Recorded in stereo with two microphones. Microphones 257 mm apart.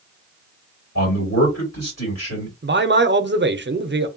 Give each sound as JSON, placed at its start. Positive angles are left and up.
{"t": 0.9, "sound": "a man speaking", "side_deg": 80, "distance_m": 2.0}
{"t": 2.6, "sound": "a man speaking", "side_deg": -45, "distance_m": 0.5}